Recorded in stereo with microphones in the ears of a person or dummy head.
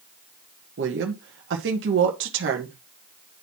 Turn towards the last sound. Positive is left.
turn(degrees=-75)  # may be behind; listen again after turning